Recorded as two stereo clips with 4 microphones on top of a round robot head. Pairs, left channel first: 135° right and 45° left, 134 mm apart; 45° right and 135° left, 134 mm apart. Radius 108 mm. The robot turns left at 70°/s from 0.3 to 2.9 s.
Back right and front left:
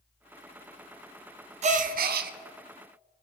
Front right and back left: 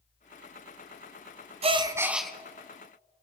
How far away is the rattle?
No rattle in this recording.